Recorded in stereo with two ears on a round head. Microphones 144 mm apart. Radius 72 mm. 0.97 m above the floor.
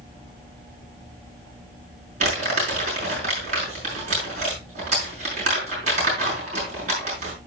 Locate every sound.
2.2 s crumpling: 45° right (ahead or behind), 6.5 m